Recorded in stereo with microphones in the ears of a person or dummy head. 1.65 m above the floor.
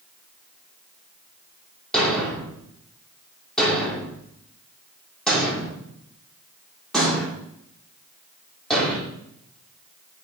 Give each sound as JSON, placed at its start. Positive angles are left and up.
{"t": 1.9, "sound": "a thud", "side_deg": 5, "distance_m": 2.0}